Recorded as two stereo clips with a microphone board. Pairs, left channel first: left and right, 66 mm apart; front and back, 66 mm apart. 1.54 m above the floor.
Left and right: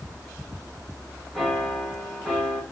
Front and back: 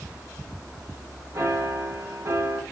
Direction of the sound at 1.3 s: 175° left.